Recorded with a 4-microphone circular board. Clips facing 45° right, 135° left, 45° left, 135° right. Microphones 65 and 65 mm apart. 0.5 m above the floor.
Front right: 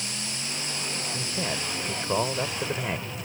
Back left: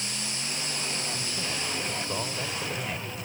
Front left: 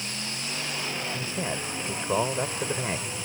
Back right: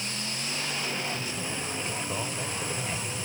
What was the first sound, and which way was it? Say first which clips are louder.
A man speaking: front right 3 dB, front left 3 dB; 5° left.